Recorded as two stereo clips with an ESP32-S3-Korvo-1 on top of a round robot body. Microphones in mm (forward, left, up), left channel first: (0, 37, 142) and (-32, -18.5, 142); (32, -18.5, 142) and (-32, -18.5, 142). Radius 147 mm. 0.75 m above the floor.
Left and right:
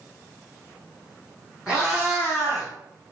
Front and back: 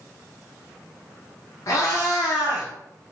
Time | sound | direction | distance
1.7 | a cat meowing | 40° right | 1.2 m